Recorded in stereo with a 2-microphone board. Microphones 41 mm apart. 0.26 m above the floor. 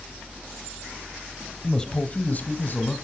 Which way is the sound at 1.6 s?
5° left (ahead or behind).